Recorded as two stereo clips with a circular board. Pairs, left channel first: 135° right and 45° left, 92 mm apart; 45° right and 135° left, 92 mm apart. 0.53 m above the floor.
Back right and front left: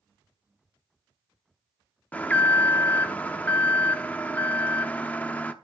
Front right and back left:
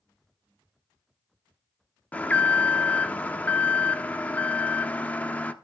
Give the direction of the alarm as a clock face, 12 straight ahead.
3 o'clock.